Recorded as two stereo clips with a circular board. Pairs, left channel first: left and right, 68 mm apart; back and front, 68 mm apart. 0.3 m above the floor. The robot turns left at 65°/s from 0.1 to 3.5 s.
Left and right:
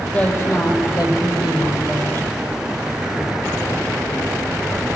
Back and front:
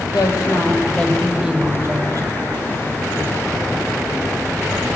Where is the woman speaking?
165° left, 7.5 m; by 2.3 s 25° left, 7.5 m.